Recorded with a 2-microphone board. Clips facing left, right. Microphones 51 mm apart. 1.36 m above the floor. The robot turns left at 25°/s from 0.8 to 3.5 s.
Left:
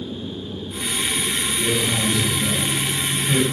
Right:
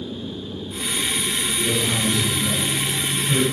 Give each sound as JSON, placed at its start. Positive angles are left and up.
{"t": 1.6, "sound": "a man speaking", "azimuth_deg": 165, "distance_m": 1.5}